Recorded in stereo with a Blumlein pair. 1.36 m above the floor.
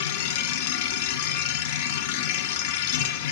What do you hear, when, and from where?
0.0 s a machine running: 50° left, 0.9 m